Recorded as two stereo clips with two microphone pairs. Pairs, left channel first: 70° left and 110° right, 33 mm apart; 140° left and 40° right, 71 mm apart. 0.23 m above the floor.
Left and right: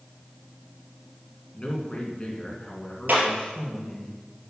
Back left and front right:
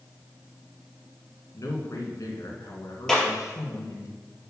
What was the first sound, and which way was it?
A man speaking, 130° left.